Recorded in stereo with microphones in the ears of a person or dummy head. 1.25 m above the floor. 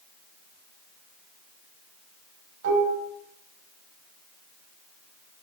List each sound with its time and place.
2.6 s dishes clattering: 75° right (ahead or behind), 5.5 m